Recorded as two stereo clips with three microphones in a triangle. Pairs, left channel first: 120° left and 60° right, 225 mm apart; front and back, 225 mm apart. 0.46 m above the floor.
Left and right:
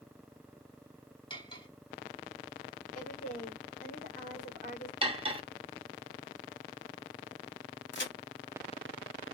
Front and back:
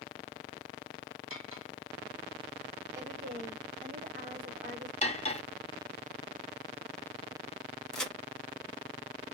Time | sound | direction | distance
1.3 | cutlery clinking | 175° right | 1.1 m
2.9 | a woman speaking | 150° left | 1.6 m
5.0 | cutlery clinking | 25° right | 0.6 m
7.9 | a crack | 90° left | 0.9 m